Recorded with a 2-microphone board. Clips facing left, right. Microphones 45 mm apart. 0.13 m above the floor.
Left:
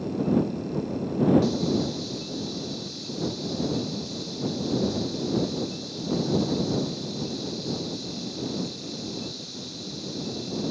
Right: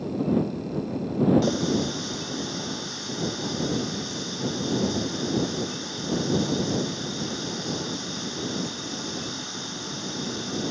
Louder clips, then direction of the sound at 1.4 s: Right 1 dB; 60° right (ahead or behind).